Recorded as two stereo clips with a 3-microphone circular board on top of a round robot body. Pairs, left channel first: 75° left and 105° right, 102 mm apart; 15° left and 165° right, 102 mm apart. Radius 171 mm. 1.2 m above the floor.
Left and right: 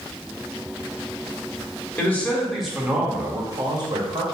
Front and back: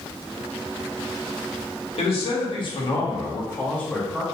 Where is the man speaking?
Straight ahead, 1.4 m; by 4.2 s 80° right, 1.2 m.